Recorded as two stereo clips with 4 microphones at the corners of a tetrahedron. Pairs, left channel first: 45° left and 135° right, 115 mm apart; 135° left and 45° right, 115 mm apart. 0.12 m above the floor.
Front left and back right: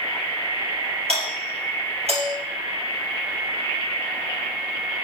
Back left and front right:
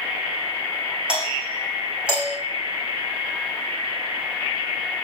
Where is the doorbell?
125° right, 6 m.